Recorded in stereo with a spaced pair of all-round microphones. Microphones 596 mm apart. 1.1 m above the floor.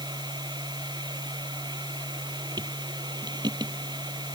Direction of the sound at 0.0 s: 5° right (ahead or behind).